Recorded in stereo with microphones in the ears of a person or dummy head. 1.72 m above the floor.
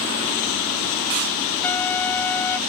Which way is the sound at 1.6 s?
10° left (ahead or behind).